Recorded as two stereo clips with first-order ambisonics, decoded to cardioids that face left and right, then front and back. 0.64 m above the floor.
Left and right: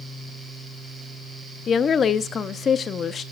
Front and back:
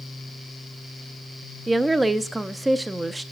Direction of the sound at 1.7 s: 110° left.